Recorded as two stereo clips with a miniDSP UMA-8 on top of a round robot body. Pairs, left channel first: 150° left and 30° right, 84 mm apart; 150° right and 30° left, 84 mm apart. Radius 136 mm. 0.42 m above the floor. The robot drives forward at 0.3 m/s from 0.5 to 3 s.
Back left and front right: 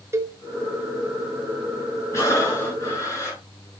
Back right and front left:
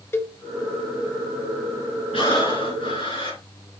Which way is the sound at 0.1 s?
90° right.